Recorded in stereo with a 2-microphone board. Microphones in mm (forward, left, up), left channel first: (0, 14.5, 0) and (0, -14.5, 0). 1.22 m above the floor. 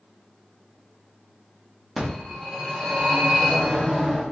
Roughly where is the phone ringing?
Centre.